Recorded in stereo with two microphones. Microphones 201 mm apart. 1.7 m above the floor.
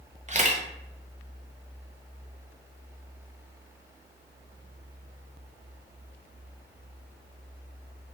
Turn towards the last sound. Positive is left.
turn(degrees=-35)  # may be behind; listen again after turning